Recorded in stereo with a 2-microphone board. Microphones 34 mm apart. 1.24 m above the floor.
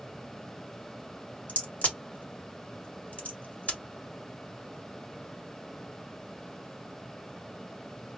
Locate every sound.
1.5 s a crack: 50° left (ahead or behind), 1.4 m